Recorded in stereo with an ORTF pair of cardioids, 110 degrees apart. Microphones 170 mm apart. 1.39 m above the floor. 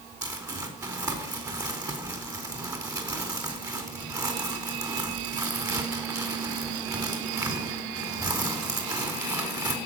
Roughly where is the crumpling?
Ahead.